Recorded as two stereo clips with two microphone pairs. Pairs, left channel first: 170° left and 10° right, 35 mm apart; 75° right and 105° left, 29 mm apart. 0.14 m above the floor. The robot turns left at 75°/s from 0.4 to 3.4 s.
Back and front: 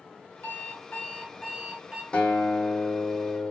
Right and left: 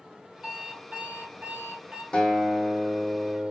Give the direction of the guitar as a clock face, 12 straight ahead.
4 o'clock.